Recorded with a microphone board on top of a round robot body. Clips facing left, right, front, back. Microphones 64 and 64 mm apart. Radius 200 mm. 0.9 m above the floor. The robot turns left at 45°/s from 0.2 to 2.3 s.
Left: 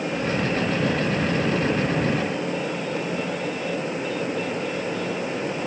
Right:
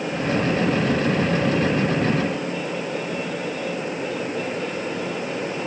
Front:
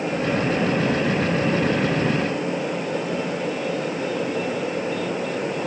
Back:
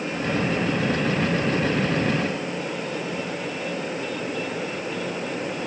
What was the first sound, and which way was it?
Only background noise.